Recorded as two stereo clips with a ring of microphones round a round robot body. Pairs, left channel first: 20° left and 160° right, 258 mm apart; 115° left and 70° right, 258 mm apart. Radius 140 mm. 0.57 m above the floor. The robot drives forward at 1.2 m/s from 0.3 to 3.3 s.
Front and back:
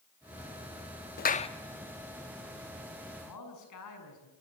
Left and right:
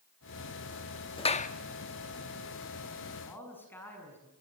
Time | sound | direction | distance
1.2 | a clap | 50° left | 1.1 m
3.2 | a man speaking | 30° left | 6.5 m